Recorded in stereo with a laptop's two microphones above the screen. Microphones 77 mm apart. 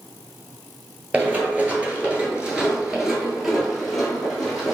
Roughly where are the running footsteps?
Right.